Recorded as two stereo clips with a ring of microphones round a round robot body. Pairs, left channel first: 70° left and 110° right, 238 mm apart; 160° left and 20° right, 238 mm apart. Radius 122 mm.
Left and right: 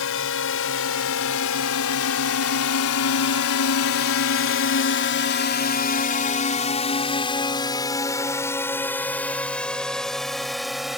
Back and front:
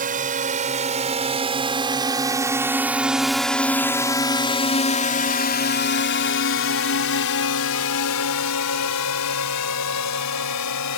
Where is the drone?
35° left; by 11.0 s 160° left.